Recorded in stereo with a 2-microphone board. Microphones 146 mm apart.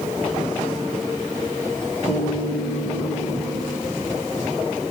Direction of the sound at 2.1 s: 75° left (ahead or behind).